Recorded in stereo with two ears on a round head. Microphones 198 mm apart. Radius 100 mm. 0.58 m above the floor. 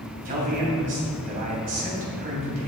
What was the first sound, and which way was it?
A man speaking, 35° right (ahead or behind).